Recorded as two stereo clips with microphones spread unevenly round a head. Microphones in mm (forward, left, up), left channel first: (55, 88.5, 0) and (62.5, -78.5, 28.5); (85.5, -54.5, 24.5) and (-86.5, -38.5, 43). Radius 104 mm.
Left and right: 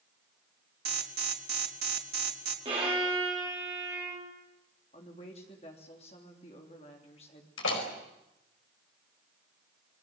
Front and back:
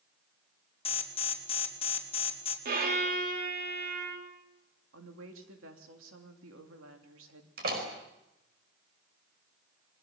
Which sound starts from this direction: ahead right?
An alarm, at 0.8 s.